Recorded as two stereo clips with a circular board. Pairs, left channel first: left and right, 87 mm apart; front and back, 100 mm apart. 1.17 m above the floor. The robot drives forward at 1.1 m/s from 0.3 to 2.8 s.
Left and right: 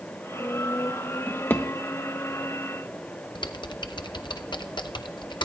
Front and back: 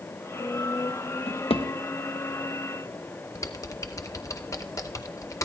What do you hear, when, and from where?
1.3 s a drawer: 15° left, 1.3 m; by 1.7 s 25° left, 0.9 m
3.4 s typing on a keyboard: 60° left, 0.7 m